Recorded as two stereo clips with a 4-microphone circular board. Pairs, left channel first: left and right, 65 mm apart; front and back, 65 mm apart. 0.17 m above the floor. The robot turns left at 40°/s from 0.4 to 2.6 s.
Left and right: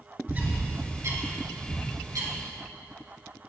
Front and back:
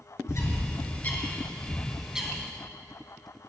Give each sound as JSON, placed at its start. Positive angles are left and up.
{"t": 0.3, "sound": "a bird", "azimuth_deg": -30, "distance_m": 1.9}